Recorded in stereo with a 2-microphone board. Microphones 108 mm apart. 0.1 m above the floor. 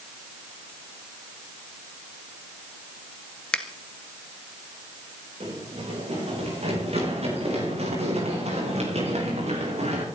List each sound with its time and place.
3.5 s a finger snap: 10° left (ahead or behind), 1.5 m
5.4 s running footsteps: 65° right (ahead or behind), 9 m; by 10.1 s 85° right, 8 m